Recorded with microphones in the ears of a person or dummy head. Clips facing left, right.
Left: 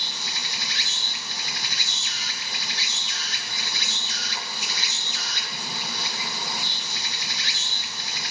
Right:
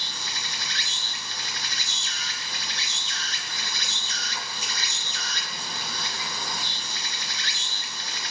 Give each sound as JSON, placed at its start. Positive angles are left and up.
{"t": 0.0, "sound": "an insect", "side_deg": 15, "distance_m": 1.4}